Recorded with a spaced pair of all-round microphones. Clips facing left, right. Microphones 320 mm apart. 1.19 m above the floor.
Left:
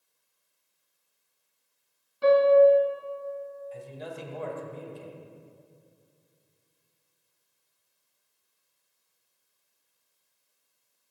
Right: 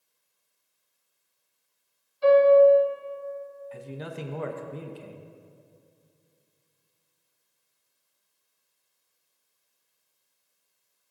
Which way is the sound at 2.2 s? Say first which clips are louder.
Right 2 dB; 75° left (ahead or behind).